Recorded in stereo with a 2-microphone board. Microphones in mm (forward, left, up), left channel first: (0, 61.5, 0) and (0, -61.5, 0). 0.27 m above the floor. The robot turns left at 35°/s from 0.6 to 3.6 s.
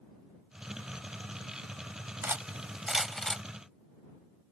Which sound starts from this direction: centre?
Cutlery clinking, at 2.2 s.